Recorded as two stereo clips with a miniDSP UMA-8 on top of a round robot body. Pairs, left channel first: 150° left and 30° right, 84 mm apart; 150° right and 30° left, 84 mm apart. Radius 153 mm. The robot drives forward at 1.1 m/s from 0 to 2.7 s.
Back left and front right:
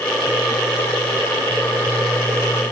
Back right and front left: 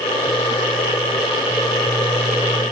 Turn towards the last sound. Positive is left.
No sound to turn to.